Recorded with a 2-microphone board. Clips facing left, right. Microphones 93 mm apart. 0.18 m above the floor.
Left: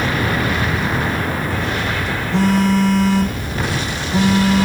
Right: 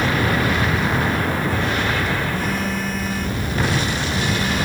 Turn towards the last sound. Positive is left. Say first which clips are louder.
# left 8 dB
turn(degrees=85)